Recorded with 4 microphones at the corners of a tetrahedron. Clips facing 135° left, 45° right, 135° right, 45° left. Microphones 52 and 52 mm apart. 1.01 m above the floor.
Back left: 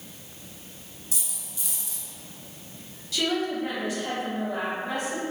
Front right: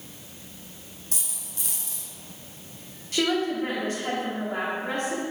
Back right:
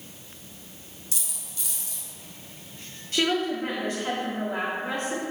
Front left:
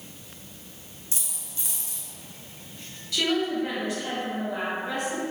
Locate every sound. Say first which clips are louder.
1.1 s a dropped coin: even, front left 1 dB; 15° right, 1.7 m
3.1 s a woman speaking: front right 2 dB, even; 90° right, 2.5 m